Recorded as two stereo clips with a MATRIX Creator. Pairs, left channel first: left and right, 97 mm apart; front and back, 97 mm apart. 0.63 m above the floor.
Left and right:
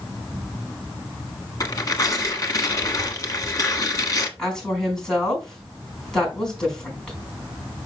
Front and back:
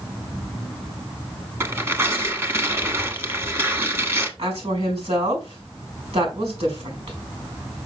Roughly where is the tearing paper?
Behind left.